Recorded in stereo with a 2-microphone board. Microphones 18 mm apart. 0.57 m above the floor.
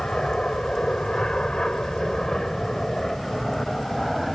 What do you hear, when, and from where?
0.0 s an aircraft: 60° left (ahead or behind); by 4.3 s 15° left (ahead or behind)